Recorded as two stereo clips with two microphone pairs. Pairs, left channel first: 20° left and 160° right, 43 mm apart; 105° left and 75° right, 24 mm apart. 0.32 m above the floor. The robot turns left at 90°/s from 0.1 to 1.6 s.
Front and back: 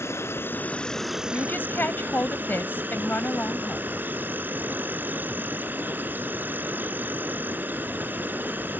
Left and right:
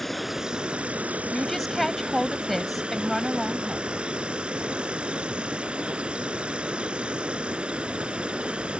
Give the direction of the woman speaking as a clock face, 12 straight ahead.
10 o'clock.